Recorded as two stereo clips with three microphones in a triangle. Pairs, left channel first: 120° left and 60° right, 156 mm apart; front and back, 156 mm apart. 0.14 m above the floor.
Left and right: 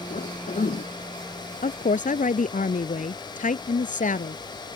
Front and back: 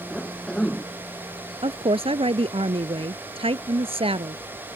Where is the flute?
I don't hear a flute.